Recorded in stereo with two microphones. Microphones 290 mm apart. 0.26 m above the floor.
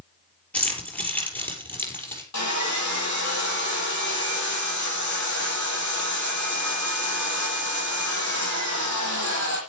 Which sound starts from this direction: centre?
Keys jangling, at 0.5 s.